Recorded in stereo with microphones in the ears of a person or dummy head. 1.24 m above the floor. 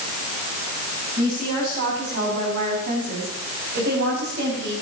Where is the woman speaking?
45° right (ahead or behind), 8 m; by 4.7 s 65° right (ahead or behind), 7.5 m.